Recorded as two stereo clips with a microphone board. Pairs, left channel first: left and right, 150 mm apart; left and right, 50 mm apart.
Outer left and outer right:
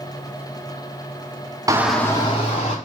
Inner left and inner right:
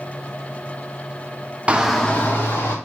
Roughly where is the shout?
Right.